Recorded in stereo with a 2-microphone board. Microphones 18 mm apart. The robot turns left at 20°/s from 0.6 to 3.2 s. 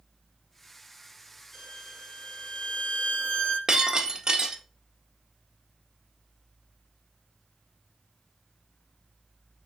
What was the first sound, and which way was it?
A violin, 140° left.